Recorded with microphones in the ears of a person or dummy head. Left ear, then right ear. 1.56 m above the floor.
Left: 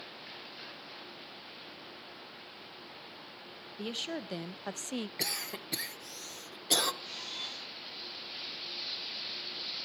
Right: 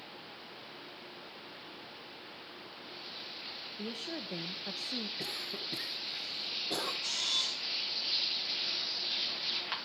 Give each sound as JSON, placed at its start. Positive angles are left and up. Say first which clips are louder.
{"t": 3.8, "sound": "a woman speaking", "louder": "left 5 dB", "side_deg": 25, "distance_m": 1.2}
{"t": 5.2, "sound": "a cough", "louder": "left 2 dB", "side_deg": 85, "distance_m": 2.0}
{"t": 7.0, "sound": "a camera shutter", "louder": "right 8 dB", "side_deg": -65, "distance_m": 6.0}